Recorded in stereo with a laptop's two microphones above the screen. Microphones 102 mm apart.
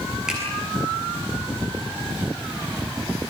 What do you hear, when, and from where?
0.3 s a finger snap: 5° right (ahead or behind), 8 m